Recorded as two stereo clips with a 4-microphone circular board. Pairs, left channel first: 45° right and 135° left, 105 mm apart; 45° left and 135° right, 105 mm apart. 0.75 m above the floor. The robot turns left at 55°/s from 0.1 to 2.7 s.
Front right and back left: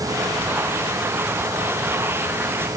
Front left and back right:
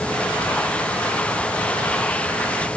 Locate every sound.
Only background noise.